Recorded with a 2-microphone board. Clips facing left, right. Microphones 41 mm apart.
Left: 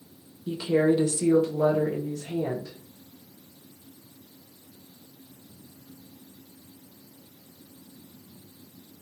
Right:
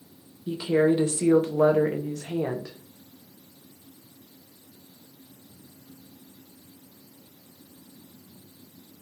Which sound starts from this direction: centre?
A woman speaking, at 0.5 s.